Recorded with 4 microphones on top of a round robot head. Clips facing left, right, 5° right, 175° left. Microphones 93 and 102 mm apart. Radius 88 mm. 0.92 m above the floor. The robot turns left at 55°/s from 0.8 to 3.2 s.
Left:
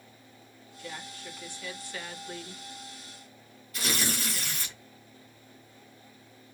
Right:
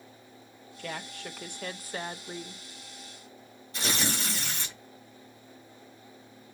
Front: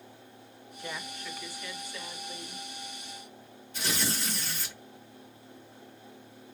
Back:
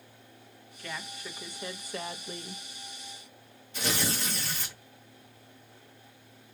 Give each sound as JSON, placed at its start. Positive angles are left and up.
{"t": 0.8, "sound": "a woman speaking", "azimuth_deg": -75, "distance_m": 0.7}
{"t": 3.7, "sound": "tearing paper", "azimuth_deg": -155, "distance_m": 2.0}